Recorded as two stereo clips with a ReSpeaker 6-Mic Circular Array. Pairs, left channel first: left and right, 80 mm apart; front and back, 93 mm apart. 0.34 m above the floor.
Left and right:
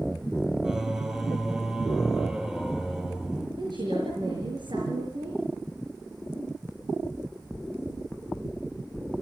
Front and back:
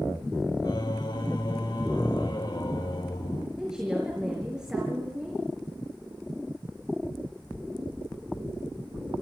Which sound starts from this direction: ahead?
Singing, at 0.6 s.